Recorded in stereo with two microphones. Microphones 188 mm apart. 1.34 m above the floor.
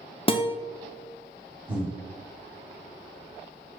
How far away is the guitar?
About 0.5 m.